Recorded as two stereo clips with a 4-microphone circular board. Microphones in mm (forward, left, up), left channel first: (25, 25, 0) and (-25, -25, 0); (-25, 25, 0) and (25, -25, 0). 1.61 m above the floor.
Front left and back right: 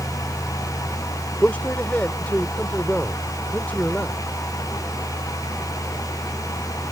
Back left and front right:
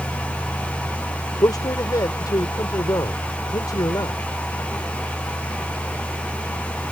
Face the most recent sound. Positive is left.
turn(degrees=115)